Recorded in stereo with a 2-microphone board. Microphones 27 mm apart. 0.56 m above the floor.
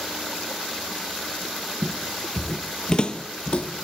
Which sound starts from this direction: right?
Footsteps, at 1.8 s.